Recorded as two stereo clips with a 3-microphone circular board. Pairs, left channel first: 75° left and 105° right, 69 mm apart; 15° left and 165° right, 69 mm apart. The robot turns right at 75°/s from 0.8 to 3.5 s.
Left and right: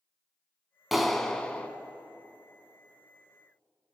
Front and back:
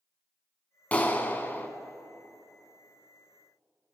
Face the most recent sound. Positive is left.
turn(degrees=170)